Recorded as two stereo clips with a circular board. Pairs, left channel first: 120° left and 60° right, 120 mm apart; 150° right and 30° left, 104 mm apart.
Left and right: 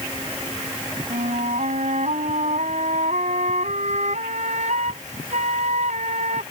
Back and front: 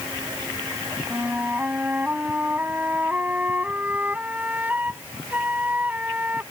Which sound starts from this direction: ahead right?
A flute, at 1.1 s.